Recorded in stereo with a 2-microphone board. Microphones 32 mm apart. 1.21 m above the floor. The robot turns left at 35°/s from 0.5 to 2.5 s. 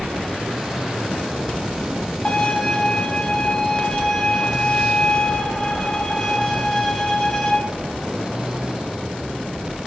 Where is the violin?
25° left (ahead or behind), 0.9 m; by 7.5 s 20° left (ahead or behind), 0.9 m.